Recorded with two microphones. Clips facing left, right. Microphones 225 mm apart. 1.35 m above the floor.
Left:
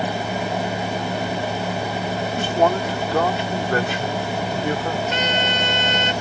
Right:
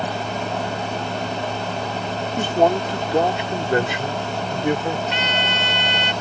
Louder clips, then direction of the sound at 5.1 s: Left 2 dB; 45° left (ahead or behind).